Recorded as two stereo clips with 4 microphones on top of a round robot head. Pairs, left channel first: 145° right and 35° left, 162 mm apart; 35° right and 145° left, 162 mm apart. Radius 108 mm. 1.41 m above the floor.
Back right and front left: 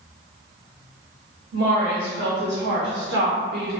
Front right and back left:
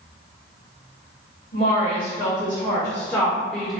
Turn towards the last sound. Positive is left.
turn(degrees=60)